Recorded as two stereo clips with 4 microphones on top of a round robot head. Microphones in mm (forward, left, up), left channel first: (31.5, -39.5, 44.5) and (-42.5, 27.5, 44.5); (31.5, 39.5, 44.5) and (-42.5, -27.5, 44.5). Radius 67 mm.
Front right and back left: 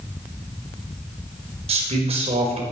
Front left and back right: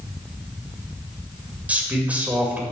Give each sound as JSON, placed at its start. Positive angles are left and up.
{"t": 1.7, "sound": "a man speaking", "azimuth_deg": 150, "distance_m": 2.5}